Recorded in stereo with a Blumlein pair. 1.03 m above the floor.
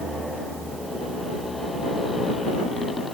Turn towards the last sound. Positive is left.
turn(degrees=15)